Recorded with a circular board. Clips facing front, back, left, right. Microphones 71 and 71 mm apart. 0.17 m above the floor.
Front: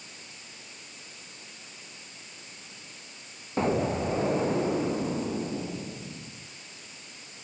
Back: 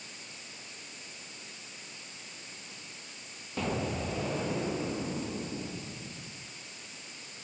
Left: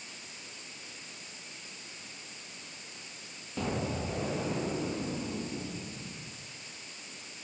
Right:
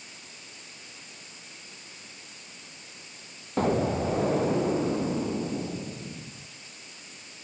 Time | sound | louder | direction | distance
3.6 | an explosion | front 7 dB, right 9 dB | 55° right | 2.5 m